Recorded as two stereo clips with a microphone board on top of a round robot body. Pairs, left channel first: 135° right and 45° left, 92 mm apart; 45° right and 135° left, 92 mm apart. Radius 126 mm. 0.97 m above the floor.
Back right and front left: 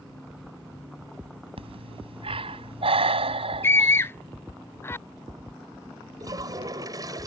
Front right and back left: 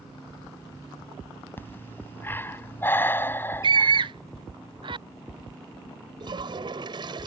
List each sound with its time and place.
1.6 s breathing: 25° left
3.6 s a scream: 165° left
6.2 s a toilet flushing: 95° left